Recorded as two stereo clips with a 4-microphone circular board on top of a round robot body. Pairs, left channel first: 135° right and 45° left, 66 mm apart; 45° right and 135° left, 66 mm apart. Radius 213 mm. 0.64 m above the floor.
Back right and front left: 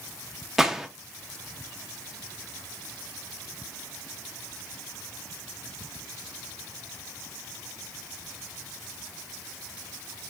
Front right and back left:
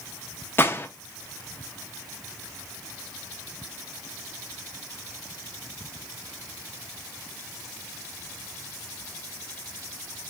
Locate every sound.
0.6 s a gunshot: 35° right, 0.8 m